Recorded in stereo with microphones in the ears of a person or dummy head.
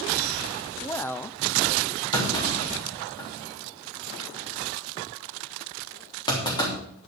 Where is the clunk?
20° left (ahead or behind), 3 m.